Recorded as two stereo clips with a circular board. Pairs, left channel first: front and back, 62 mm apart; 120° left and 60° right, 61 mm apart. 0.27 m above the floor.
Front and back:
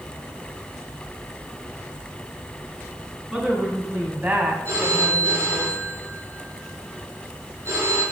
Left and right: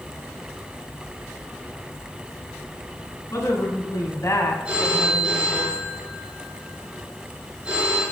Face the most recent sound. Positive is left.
turn(degrees=-135)